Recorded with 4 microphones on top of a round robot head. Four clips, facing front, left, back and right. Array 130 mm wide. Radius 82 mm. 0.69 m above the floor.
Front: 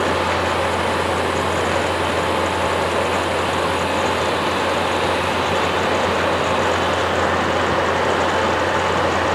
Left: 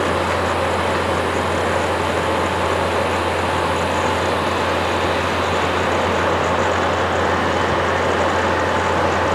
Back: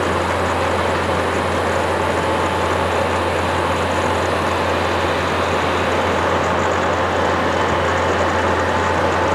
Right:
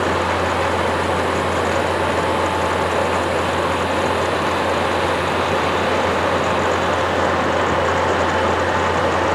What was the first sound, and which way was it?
Only background noise.